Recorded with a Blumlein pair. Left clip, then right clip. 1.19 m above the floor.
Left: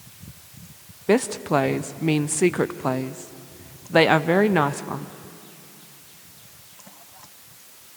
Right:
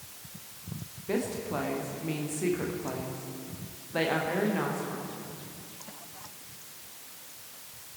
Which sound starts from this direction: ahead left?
A woman speaking, at 1.1 s.